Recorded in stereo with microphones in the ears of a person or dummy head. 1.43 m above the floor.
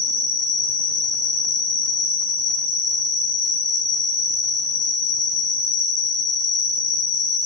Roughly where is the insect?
Left.